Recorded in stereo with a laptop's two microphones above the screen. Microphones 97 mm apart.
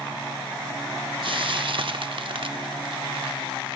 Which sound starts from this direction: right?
Frying, at 1.2 s.